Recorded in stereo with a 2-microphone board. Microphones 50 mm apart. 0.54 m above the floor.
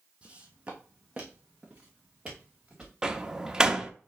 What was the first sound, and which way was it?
Footsteps, 20° right (ahead or behind).